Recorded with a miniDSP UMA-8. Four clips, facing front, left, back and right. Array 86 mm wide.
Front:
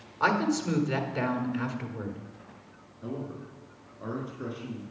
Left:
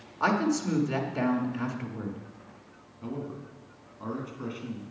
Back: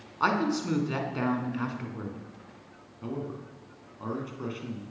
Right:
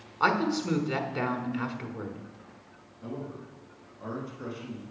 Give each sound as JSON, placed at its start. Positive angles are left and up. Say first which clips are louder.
{"t": 0.2, "sound": "a woman speaking", "louder": "even, front 1 dB", "azimuth_deg": -120, "distance_m": 1.0}
{"t": 3.0, "sound": "a man speaking", "louder": "left 2 dB, back 1 dB", "azimuth_deg": 155, "distance_m": 3.0}